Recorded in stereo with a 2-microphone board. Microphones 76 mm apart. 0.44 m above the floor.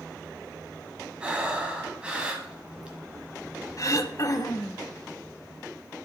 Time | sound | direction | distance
1.2 | breathing | 15° right (ahead or behind) | 1.5 m
3.8 | throat clearing | 45° left (ahead or behind) | 0.7 m